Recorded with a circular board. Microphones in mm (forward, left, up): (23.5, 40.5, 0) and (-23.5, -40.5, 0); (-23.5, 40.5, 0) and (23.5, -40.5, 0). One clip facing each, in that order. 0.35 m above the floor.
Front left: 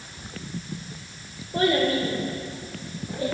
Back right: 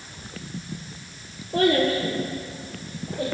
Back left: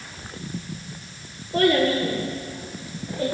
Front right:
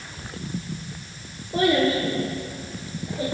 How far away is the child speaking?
About 4.5 m.